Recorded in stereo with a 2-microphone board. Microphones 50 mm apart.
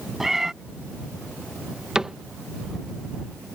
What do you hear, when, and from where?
0.2 s a cat meowing: 10° right (ahead or behind)
1.9 s a cupboard door: 15° right (ahead or behind)